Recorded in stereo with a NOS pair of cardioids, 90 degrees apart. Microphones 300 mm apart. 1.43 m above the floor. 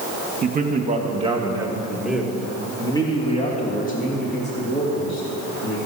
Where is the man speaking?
30° right, 2.5 m; by 5.8 s 45° left, 4 m.